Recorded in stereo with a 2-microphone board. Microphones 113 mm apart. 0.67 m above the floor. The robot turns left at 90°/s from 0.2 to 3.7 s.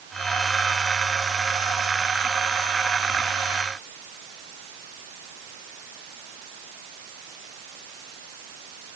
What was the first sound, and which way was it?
Only background noise.